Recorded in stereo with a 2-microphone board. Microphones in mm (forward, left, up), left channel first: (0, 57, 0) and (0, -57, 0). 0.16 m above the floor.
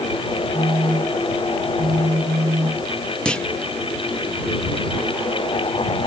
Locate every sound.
0.5 s a phone buzzing: 50° right (ahead or behind)
3.2 s a clunk: 10° left (ahead or behind)